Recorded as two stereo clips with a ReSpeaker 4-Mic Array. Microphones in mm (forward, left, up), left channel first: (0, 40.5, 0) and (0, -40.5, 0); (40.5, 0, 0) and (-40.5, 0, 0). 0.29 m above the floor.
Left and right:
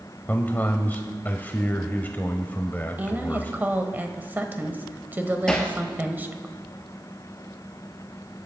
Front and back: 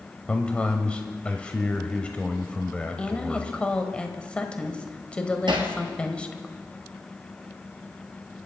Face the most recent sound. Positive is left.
turn(degrees=170)